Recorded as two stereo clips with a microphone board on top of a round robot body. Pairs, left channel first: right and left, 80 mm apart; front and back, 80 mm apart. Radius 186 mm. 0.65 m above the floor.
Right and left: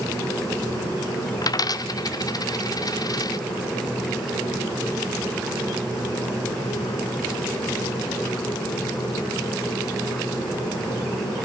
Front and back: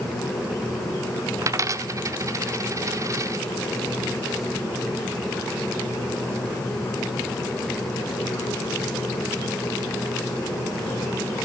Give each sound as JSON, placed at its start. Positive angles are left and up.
{"t": 1.4, "sound": "a dropped coin", "azimuth_deg": -130, "distance_m": 1.1}